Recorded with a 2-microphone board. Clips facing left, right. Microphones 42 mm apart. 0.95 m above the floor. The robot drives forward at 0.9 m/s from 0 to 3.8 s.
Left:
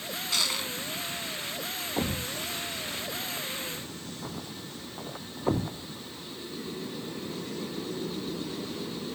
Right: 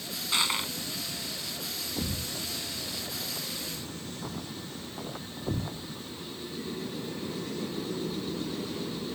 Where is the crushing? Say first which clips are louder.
Right 2 dB; 20° right (ahead or behind); by 0.7 s 25° right (ahead or behind).